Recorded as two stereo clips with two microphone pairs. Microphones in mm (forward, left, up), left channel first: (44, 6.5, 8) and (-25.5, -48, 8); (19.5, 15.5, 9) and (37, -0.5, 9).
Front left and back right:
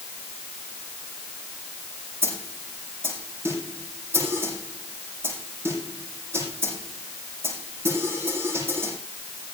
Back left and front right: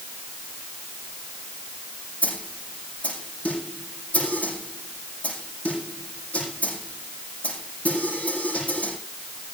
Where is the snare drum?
155° left, 7 m.